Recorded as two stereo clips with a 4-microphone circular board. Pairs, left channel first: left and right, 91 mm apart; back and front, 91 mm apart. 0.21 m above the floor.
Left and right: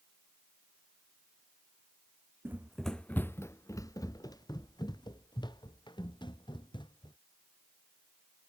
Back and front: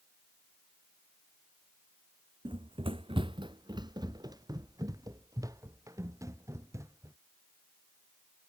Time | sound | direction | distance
2.5 | running footsteps | 25° right | ?